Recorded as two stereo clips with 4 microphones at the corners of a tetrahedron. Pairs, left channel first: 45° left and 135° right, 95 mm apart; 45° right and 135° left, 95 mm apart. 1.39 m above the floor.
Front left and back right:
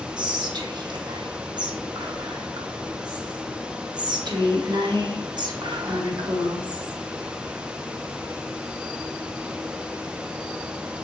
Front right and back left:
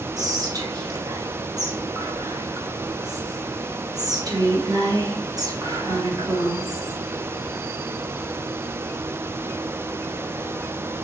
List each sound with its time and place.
0.2 s whispering: 175° right, 1.0 m